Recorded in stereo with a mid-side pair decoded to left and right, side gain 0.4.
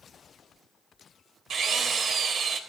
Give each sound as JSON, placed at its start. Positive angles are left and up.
{"t": 1.5, "sound": "a drill", "azimuth_deg": -65, "distance_m": 3.5}